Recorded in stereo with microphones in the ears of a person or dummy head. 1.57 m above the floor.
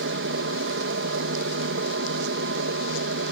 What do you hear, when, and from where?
0.0 s an aircraft: 60° right (ahead or behind)